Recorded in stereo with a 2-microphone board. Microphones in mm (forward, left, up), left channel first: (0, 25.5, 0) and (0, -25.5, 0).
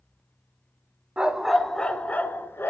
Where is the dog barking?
20° right (ahead or behind), 1.3 m; by 2.7 s 45° left (ahead or behind), 1.9 m.